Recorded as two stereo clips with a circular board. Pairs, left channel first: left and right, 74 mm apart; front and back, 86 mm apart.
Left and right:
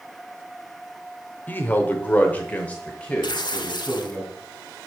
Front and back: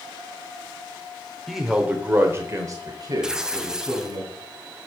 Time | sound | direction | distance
1.5 | a man speaking | 90° left | 0.9 m
3.2 | tearing paper | 100° left | 0.5 m